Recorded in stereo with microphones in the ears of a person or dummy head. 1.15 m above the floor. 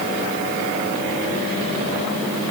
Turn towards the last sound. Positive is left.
No sound to turn to.